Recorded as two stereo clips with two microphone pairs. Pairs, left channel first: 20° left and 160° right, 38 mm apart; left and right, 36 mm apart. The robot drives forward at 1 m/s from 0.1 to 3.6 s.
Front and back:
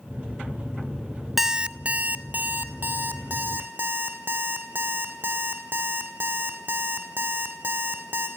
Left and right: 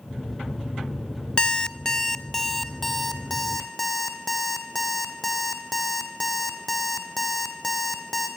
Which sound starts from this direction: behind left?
An alarm clock, at 1.4 s.